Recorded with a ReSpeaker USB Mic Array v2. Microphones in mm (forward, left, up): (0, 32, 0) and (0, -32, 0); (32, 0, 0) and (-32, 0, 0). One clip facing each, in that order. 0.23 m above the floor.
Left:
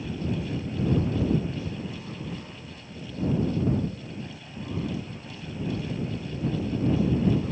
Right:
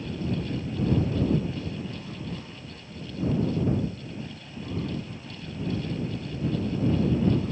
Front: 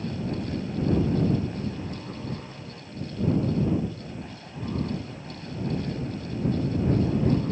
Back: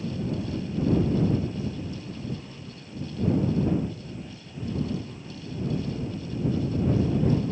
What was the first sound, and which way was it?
Only background noise.